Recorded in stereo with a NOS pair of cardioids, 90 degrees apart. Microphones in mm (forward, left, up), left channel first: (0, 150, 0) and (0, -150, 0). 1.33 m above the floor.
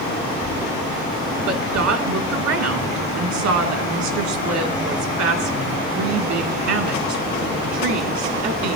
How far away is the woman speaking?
About 2.5 m.